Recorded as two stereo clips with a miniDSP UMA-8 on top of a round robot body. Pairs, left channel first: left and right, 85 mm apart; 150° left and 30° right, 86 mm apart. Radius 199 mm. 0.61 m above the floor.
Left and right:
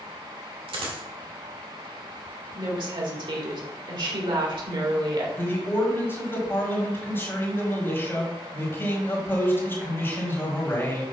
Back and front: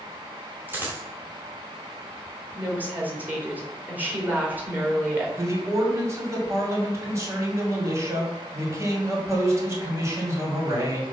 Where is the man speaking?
25° left, 2.5 m.